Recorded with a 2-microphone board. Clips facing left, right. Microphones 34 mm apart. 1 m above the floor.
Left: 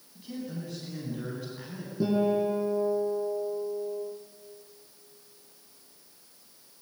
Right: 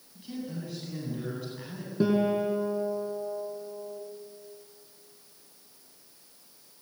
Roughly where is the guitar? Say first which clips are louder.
Even; right.